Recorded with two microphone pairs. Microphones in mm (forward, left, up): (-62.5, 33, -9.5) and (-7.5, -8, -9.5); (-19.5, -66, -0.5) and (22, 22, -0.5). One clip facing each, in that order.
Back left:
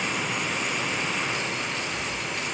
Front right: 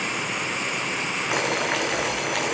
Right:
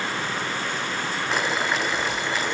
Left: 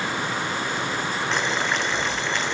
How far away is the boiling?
About 1.7 m.